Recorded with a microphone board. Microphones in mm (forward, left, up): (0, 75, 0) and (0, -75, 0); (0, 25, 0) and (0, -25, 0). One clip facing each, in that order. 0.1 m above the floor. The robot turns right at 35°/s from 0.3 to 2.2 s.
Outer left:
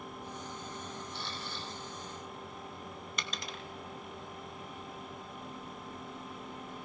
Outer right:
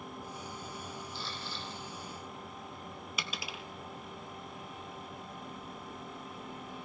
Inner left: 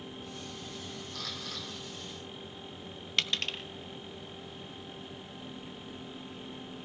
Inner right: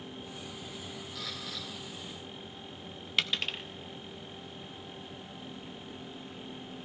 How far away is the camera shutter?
About 4 m.